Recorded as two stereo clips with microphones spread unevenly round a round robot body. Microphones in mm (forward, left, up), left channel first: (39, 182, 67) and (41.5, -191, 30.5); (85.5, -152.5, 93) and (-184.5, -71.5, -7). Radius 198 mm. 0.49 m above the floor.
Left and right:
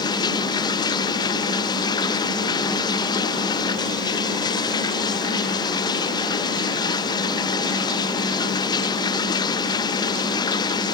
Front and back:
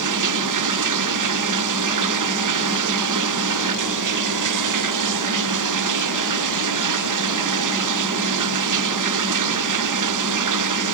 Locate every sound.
0.0 s running water: 170° left